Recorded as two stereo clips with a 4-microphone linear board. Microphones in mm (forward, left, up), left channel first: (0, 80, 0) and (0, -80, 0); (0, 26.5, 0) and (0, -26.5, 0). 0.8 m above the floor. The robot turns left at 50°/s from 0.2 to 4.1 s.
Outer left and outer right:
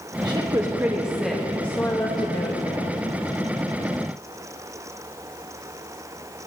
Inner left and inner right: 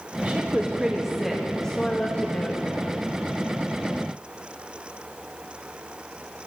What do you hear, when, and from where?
0.2 s a woman speaking: 130° right, 1.1 m; by 3.1 s 90° left, 1.1 m